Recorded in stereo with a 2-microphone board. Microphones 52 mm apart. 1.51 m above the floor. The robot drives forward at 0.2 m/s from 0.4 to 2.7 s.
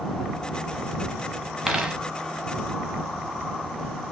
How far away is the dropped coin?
About 0.9 m.